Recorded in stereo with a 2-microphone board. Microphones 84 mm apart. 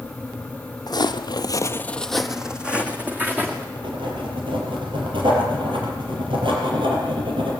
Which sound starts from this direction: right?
Writing, at 3.8 s.